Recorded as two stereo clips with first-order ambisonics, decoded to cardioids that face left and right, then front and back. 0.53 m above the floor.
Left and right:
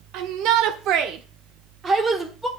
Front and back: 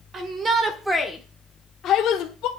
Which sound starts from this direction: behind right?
A shout, at 0.1 s.